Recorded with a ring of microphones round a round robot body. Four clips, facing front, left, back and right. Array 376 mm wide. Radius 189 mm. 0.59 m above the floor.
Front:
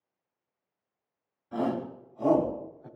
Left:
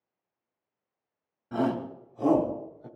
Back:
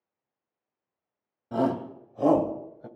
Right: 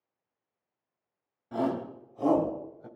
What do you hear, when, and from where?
1.5 s a shout: 160° left, 2.5 m; by 2.9 s 175° right, 3.5 m